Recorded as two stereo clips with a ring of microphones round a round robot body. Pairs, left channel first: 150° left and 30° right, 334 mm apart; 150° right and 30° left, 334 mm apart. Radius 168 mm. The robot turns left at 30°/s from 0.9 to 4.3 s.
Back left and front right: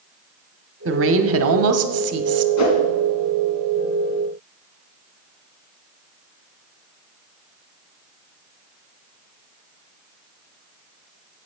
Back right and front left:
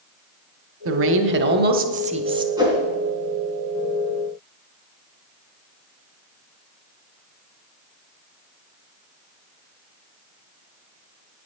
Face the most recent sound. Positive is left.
turn(degrees=55)